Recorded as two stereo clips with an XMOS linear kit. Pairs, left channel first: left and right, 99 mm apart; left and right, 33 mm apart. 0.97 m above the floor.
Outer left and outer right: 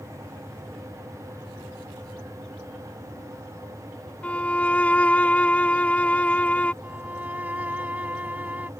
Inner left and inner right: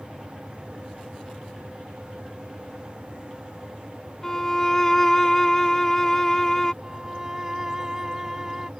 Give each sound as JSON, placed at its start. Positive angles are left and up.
{"t": 4.2, "sound": "a violin", "side_deg": 15}
{"t": 6.8, "sound": "a violin", "side_deg": -15}